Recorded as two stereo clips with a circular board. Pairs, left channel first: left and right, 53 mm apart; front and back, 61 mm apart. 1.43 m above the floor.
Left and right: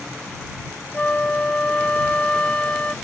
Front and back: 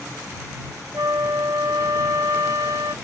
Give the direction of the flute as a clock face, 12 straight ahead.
7 o'clock.